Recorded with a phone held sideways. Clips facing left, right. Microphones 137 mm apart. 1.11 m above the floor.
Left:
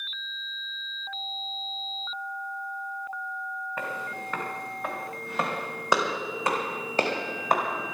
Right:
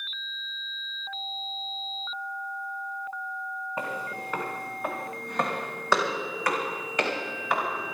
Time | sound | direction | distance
3.8 | footsteps | 15° right (ahead or behind) | 4 m